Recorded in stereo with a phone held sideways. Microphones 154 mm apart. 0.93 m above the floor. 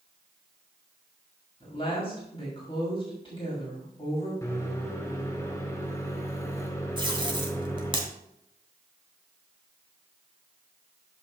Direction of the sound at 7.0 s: 30° right (ahead or behind).